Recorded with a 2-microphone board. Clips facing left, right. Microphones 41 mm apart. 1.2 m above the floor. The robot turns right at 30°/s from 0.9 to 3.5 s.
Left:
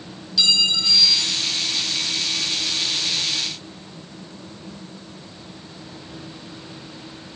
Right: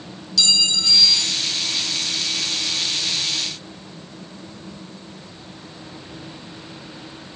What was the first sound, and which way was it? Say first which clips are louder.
A clink: left 1 dB; 15° left (ahead or behind).